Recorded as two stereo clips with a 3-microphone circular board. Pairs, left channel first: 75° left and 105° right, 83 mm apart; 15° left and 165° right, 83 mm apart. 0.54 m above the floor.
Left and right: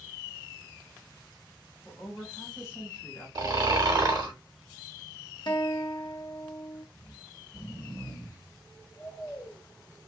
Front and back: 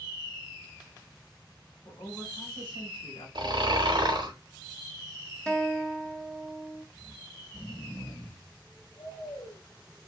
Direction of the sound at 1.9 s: 20° left.